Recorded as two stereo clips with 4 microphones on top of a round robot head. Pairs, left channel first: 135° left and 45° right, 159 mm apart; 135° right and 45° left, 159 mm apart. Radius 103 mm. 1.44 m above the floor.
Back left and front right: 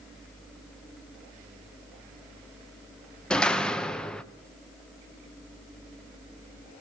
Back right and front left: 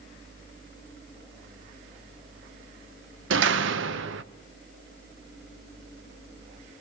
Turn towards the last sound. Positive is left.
turn(degrees=50)